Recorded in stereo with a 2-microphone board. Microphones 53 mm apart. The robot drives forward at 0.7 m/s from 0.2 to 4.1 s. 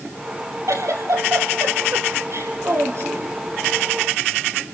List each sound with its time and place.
0.7 s a giggle: 80° right, 3 m; by 3.4 s 50° right (ahead or behind), 3.5 m